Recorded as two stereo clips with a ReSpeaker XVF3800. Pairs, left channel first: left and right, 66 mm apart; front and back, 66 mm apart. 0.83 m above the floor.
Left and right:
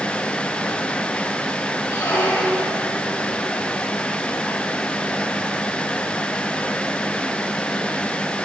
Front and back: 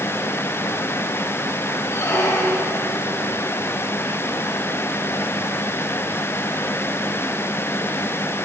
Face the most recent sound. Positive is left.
turn(degrees=50)